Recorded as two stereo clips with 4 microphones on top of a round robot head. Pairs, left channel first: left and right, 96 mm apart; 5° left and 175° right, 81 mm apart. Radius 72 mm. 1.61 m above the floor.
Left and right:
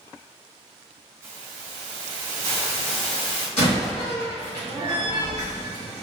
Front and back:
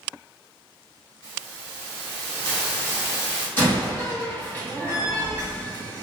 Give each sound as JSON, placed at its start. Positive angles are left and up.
{"t": 1.2, "sound": "a hiss", "azimuth_deg": -40, "distance_m": 1.7}
{"t": 3.6, "sound": "a door slam", "azimuth_deg": 70, "distance_m": 1.9}